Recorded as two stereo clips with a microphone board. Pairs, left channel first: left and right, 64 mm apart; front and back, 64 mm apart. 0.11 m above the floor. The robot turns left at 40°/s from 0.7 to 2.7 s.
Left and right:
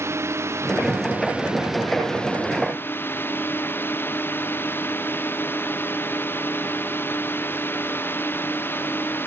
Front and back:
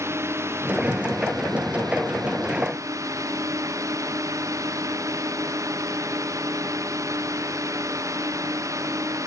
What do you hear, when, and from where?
0.0 s a drone: 135° right; by 9.3 s 145° left